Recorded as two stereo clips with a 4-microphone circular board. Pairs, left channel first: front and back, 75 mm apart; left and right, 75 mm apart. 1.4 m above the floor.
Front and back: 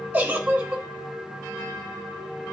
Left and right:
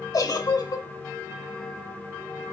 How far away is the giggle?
About 1.3 m.